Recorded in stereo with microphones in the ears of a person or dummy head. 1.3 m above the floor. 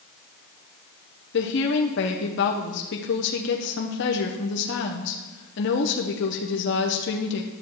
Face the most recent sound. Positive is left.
turn(degrees=55)  # may be behind; listen again after turning